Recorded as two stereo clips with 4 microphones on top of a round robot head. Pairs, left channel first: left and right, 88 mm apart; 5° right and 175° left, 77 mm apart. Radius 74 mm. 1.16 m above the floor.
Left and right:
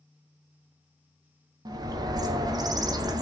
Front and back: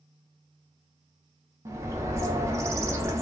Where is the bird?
130° right, 0.5 m.